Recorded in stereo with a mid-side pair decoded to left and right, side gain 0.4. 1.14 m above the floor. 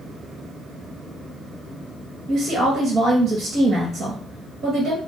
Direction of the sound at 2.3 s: 65° right.